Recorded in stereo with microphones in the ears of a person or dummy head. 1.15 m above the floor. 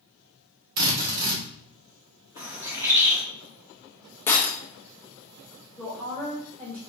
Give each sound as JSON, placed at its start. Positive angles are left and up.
{"t": 0.8, "sound": "a drill", "side_deg": -60, "distance_m": 1.3}
{"t": 2.4, "sound": "a bird", "side_deg": -5, "distance_m": 0.6}
{"t": 4.3, "sound": "breaking glass", "side_deg": 5, "distance_m": 0.6}
{"t": 5.8, "sound": "a woman speaking", "side_deg": 0, "distance_m": 1.1}